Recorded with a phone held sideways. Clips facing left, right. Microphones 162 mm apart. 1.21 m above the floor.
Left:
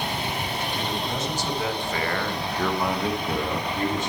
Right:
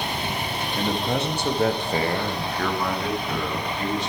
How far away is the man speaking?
About 1.9 m.